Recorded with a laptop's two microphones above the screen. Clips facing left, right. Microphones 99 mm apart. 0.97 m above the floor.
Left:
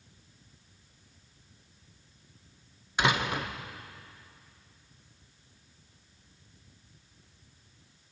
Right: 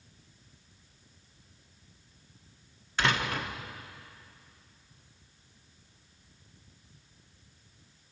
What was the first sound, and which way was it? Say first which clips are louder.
A door slam: left 1 dB; 15° left (ahead or behind).